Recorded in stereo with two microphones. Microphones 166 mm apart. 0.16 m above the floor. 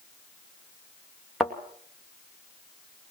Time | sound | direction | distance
1.4 | a thud | centre (ahead or behind) | 2.5 m